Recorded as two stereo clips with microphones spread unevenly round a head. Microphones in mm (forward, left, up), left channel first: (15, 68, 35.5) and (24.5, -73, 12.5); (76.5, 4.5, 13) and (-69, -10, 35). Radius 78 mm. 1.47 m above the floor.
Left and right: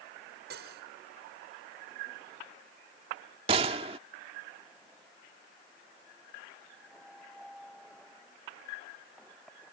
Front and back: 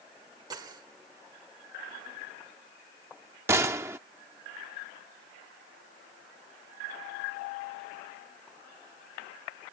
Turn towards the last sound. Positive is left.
turn(degrees=-130)